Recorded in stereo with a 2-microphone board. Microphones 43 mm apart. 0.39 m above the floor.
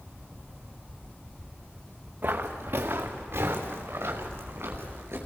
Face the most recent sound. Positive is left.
turn(degrees=-60)  # may be behind; listen again after turning